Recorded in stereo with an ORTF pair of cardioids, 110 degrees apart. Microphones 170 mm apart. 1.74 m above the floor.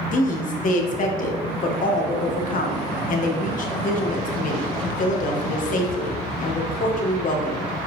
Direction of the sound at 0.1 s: 50° left.